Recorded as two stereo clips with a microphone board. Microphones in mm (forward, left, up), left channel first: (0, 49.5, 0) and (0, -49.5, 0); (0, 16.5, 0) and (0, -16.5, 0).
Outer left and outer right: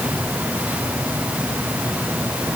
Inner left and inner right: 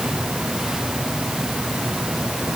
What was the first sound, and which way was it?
Only background noise.